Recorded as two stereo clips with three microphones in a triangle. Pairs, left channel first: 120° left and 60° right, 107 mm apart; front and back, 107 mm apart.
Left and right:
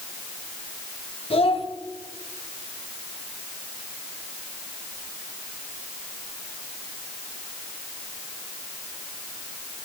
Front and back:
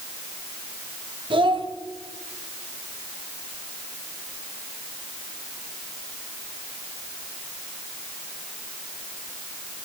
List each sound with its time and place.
1.3 s a child speaking: 145° left, 1.5 m